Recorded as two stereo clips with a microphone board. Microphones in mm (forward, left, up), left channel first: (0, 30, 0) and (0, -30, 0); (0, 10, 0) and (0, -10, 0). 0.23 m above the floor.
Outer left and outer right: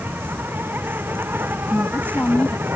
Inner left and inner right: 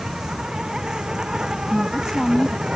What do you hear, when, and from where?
0.0 s an insect: 35° right (ahead or behind)
1.7 s a woman speaking: 30° left (ahead or behind)